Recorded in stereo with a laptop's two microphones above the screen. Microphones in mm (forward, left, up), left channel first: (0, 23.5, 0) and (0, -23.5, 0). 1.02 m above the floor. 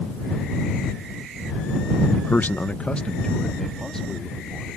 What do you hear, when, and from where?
2.1 s a man speaking: 40° left (ahead or behind); by 4.8 s 5° left (ahead or behind)